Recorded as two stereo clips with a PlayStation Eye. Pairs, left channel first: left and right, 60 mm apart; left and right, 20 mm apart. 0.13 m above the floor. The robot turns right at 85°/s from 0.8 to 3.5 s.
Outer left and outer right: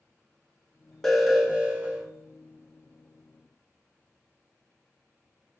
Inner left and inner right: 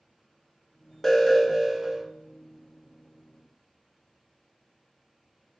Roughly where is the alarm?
Behind.